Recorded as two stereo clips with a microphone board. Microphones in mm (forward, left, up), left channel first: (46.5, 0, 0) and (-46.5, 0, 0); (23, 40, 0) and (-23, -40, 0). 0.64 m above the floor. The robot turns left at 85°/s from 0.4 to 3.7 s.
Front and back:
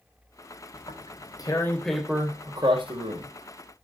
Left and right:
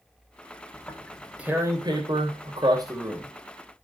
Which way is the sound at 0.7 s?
10° left.